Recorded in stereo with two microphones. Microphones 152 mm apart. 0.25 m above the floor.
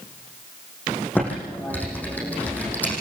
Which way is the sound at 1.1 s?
10° left (ahead or behind).